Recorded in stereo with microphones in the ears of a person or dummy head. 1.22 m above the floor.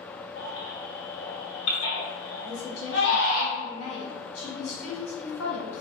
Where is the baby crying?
85° left, 1.3 m.